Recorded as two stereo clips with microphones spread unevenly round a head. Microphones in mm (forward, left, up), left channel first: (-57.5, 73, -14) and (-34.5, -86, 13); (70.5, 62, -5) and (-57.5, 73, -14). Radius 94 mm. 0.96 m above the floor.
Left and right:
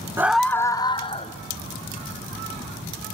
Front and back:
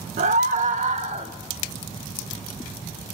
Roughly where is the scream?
Behind.